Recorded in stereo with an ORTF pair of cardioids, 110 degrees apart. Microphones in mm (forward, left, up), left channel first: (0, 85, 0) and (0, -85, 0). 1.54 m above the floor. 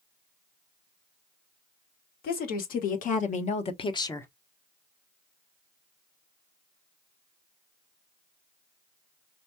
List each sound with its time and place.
2.2 s a woman speaking: 65° left, 1.8 m; by 4.3 s 15° left, 0.8 m